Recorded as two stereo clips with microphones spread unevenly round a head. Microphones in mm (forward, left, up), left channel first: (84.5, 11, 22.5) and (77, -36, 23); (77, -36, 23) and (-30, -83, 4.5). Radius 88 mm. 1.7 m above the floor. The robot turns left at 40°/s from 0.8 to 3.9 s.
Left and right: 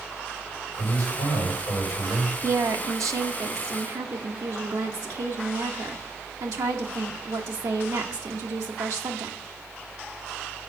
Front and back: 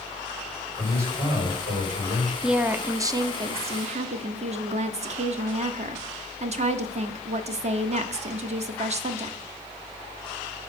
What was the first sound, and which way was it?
A man speaking, 85° right.